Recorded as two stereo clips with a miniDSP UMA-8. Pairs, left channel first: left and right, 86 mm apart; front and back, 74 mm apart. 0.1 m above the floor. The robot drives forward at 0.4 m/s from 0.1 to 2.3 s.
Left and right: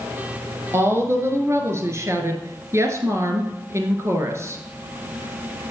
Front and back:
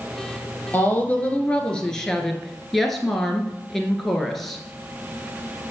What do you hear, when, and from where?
0.7 s a woman speaking: 50° right, 1.7 m; by 4.6 s 85° right, 1.5 m